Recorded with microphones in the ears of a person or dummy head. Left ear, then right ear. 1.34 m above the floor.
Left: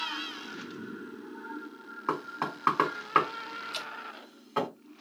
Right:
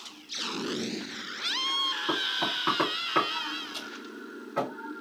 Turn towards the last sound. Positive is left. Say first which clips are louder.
# left 2 dB
turn(degrees=60)  # may be behind; listen again after turning